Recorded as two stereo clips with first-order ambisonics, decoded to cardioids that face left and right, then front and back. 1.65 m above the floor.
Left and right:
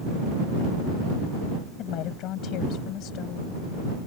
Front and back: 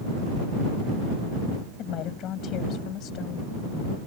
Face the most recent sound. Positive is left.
turn(degrees=45)